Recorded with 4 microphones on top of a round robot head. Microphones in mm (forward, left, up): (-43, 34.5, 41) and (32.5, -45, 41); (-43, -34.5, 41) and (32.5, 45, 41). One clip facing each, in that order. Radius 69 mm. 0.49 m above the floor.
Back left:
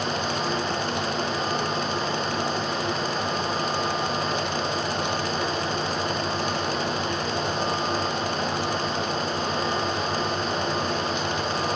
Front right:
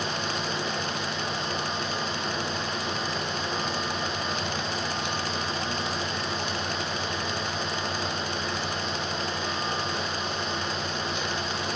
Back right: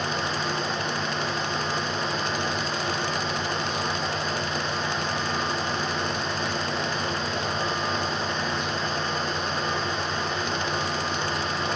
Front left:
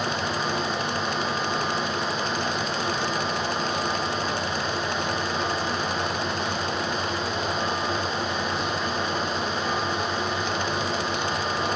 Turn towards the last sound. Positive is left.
No sound to turn to.